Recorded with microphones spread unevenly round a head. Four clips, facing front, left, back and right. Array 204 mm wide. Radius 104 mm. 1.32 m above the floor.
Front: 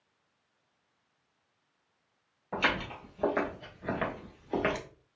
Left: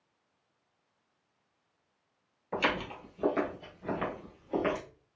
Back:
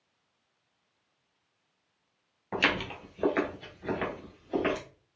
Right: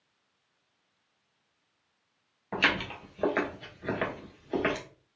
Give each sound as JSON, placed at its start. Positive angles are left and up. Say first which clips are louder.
{"t": 2.5, "sound": "footsteps", "louder": "right 1 dB, back 1 dB", "azimuth_deg": -165, "distance_m": 1.4}